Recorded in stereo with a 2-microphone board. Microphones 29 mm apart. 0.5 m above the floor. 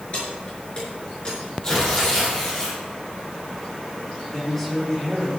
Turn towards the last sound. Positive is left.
turn(degrees=15)  # may be behind; listen again after turning